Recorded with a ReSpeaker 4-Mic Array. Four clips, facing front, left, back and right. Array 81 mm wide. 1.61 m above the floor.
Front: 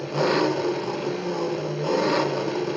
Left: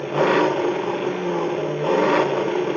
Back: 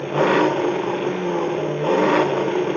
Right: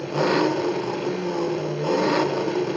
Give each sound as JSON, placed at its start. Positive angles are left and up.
{"t": 0.0, "sound": "an engine running", "azimuth_deg": 145, "distance_m": 1.2}